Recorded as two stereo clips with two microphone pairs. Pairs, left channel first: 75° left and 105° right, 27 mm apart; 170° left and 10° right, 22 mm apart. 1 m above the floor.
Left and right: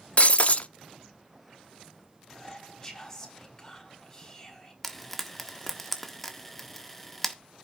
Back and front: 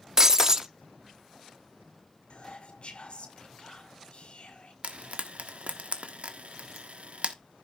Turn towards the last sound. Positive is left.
turn(degrees=-10)